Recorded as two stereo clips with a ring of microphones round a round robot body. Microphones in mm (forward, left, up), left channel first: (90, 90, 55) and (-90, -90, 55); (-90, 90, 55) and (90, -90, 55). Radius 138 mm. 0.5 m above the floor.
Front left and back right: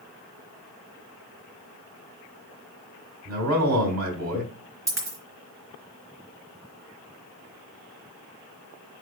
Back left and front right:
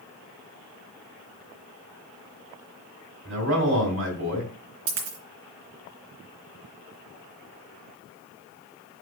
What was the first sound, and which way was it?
A man speaking, 85° right.